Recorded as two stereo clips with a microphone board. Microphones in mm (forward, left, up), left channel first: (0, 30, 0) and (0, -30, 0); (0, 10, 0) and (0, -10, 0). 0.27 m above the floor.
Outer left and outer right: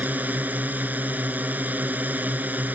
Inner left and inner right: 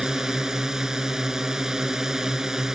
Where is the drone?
30° right (ahead or behind).